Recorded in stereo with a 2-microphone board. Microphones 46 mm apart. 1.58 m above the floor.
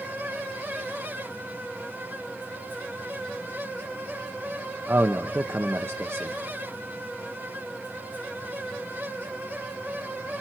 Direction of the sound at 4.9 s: 65° right (ahead or behind).